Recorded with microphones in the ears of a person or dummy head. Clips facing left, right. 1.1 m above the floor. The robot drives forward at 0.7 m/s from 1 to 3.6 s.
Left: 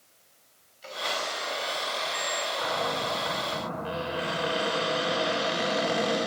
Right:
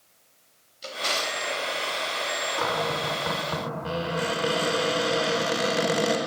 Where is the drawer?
55° right (ahead or behind), 4 m; by 1.5 s 60° right (ahead or behind), 3.5 m.